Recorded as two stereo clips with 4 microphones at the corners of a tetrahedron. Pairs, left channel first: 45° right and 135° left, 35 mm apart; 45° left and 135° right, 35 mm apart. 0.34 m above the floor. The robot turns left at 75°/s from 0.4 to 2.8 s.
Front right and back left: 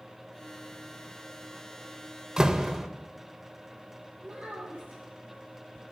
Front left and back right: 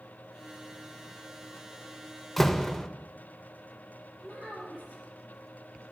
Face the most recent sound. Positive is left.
turn(degrees=-170)